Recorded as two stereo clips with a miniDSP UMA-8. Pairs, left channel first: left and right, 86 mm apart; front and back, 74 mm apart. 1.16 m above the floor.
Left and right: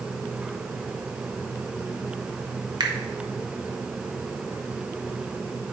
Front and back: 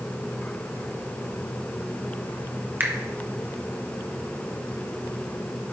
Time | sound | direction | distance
2.8 | a finger snap | 120° right | 1.0 m